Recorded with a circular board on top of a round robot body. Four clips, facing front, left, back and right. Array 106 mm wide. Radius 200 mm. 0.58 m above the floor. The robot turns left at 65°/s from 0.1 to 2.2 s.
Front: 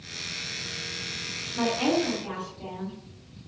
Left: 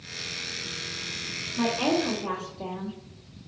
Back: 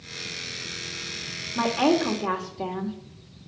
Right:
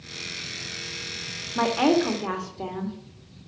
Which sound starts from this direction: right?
A woman speaking, at 1.6 s.